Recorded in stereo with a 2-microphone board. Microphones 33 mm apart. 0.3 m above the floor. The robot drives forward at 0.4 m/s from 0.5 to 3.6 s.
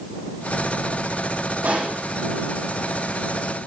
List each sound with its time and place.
1.6 s a pop: 55° right (ahead or behind), 6.5 m